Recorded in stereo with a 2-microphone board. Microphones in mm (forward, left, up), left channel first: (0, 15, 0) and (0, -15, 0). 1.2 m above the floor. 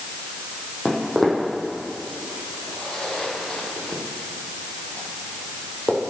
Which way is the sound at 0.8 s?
5° right (ahead or behind).